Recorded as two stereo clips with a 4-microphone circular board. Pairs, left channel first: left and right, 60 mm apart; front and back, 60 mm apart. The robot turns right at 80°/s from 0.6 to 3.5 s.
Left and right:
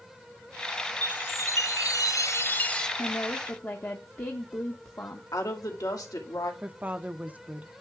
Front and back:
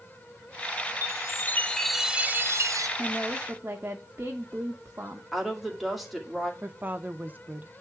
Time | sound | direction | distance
1.0 | a chime | 20° left | 0.8 m
3.0 | a woman speaking | 85° left | 1.0 m
5.3 | a woman speaking | 95° left | 2.5 m
6.6 | a woman speaking | 140° right | 0.7 m